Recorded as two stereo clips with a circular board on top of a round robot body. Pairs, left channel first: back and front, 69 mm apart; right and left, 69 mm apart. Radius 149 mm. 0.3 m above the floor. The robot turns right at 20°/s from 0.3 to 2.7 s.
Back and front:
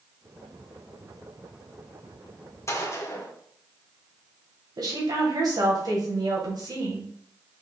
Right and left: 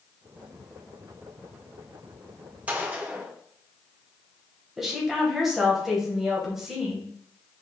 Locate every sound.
2.7 s a gunshot: 150° left, 1.9 m; by 3.3 s 155° left, 1.9 m
4.8 s a woman speaking: 5° left, 3 m